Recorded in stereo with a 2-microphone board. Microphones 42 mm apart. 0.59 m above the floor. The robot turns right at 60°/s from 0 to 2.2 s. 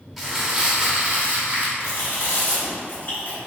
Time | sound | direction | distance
0.2 | crumpling | 170° right | 1.2 m
1.8 | chewing | 70° left (ahead or behind) | 1.8 m